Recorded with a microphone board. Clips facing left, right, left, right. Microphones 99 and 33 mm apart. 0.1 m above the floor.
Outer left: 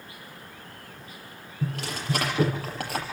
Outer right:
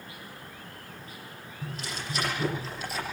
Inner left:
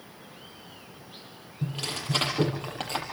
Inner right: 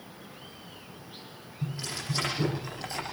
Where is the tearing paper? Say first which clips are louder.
Outer left 6 dB, inner left 3 dB; 75° left (ahead or behind), 7.5 m.